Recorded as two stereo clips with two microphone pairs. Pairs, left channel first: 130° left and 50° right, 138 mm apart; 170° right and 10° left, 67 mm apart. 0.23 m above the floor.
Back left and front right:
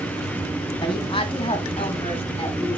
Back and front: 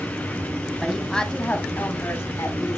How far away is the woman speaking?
About 1.3 m.